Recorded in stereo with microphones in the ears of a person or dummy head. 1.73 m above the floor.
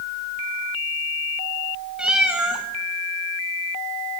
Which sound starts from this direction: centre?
A cat meowing, at 2.0 s.